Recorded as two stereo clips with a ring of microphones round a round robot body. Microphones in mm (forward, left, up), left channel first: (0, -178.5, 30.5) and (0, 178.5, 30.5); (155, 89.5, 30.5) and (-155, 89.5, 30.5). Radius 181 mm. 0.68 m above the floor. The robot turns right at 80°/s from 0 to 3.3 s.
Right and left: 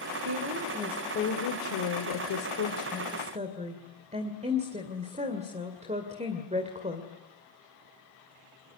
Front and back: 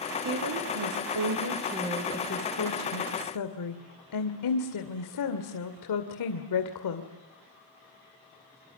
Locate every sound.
0.2 s a woman speaking: 135° left, 2.5 m; by 7.1 s 20° left, 2.5 m